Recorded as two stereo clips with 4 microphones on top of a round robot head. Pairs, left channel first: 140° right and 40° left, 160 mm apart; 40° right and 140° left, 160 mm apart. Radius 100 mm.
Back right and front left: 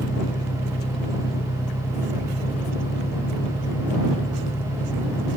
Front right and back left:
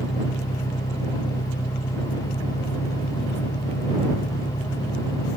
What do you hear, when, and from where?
0.0 s an engine running: 100° right